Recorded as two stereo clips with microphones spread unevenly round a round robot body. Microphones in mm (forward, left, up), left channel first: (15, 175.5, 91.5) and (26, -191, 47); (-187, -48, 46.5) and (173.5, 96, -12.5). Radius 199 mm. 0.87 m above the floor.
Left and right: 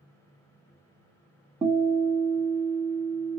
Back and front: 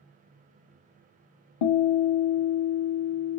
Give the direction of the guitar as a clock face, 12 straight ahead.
6 o'clock.